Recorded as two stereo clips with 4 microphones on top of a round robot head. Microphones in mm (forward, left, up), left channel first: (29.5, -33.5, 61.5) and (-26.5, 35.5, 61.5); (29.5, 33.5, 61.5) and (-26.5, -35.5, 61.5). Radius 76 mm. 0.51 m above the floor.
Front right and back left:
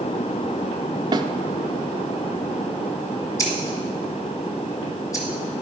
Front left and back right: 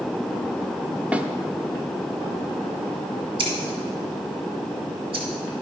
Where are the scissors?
105° right, 2 m.